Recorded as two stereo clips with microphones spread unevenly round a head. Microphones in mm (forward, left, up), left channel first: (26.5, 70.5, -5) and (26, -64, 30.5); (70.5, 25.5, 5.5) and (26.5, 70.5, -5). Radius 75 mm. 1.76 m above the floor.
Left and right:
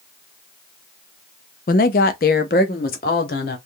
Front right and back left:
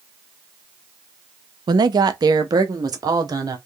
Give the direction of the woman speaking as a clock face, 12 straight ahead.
8 o'clock.